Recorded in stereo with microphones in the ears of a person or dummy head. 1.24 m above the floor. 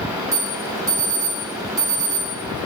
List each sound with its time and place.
0.3 s an alarm: 15° right (ahead or behind), 1.1 m